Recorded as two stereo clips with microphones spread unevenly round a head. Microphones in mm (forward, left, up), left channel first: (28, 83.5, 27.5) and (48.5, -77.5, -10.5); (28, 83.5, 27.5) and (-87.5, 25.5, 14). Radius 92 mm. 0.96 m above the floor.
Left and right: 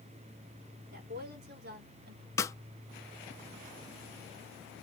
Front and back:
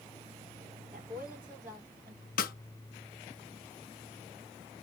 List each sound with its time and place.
0.9 s a woman speaking: 65° right, 3 m; by 2.3 s 100° right, 2 m
2.4 s a snare drum: 20° left, 0.7 m